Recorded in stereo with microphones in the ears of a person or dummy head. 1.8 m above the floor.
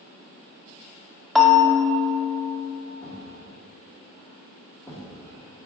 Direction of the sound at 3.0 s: 10° left (ahead or behind).